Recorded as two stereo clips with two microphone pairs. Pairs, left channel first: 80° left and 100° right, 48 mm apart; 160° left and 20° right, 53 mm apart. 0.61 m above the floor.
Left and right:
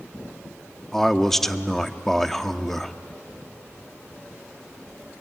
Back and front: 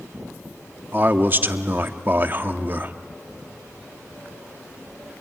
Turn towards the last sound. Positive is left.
turn(degrees=0)